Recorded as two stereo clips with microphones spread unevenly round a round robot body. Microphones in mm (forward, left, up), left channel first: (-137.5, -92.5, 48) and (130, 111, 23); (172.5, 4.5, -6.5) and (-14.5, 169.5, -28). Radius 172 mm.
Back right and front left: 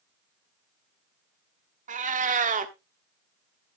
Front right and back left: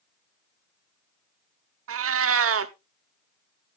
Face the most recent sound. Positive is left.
turn(degrees=105)